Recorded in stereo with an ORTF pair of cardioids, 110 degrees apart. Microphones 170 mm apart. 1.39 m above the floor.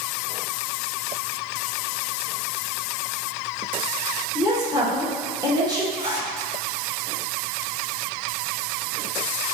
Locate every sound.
4.3 s a woman speaking: 20° right, 1.8 m
6.0 s a zipper: 50° right, 1.8 m